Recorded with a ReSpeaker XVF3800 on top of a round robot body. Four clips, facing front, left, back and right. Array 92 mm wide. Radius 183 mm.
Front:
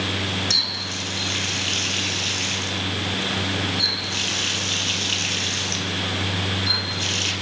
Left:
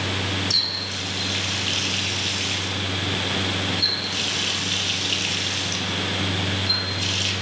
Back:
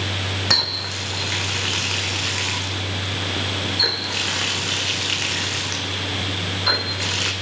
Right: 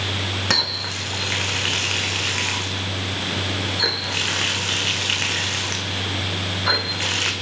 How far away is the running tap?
About 1.9 m.